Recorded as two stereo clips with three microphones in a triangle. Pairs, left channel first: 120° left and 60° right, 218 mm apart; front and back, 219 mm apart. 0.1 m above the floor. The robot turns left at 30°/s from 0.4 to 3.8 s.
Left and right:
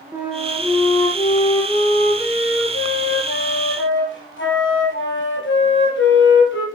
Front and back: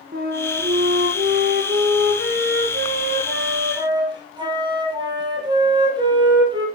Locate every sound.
0.1 s a flute: 145° right, 3.5 m; by 6.7 s 115° left, 3.5 m